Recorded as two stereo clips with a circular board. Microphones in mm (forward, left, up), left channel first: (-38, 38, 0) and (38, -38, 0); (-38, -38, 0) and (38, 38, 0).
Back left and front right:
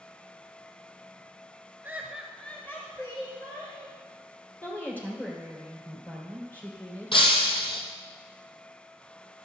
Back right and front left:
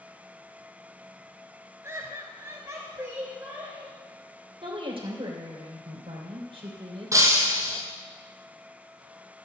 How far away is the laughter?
About 1.5 m.